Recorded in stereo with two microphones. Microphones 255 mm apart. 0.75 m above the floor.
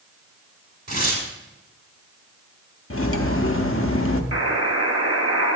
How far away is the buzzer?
About 1.5 m.